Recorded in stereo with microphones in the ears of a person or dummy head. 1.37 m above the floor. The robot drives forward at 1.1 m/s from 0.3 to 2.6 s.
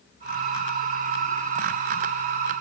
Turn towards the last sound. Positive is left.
No sound to turn to.